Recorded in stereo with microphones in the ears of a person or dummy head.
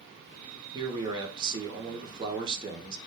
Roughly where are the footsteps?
No footsteps in this recording.